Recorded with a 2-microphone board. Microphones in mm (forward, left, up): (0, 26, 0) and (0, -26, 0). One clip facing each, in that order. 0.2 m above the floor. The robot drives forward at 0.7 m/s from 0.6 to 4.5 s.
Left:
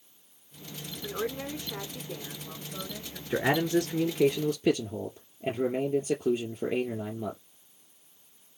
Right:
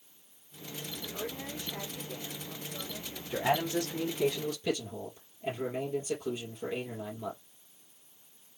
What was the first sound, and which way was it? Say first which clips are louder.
A woman speaking: left 8 dB; 55° left (ahead or behind).